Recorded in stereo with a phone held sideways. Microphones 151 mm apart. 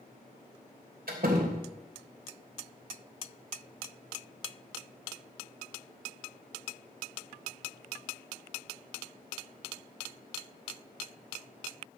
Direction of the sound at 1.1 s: 85° right.